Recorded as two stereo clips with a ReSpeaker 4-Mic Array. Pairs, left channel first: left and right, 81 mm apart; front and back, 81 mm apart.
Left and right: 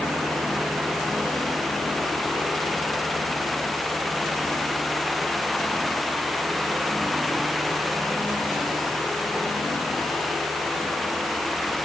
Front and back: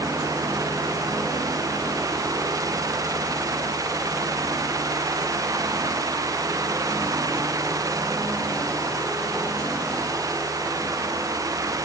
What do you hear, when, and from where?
Only background noise.